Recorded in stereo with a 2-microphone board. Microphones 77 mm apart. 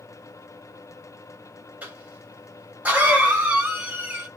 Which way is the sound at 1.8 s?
20° right (ahead or behind).